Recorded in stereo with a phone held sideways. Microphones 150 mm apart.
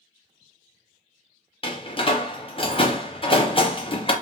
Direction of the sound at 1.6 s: 40° left (ahead or behind).